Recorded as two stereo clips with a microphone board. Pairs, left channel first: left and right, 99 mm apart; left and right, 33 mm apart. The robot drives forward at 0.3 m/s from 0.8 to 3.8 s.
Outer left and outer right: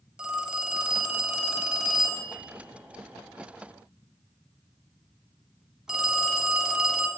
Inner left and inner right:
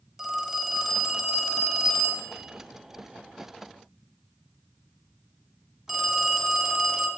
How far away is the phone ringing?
About 0.9 m.